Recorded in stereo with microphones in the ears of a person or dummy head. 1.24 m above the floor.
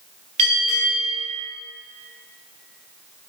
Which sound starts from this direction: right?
A bell, at 0.4 s.